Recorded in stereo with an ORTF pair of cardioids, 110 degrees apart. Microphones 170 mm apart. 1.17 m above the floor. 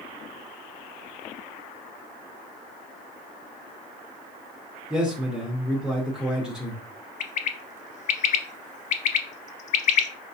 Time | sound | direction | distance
4.9 | a man speaking | 5° right | 0.9 m
7.2 | a bird | 45° left | 0.5 m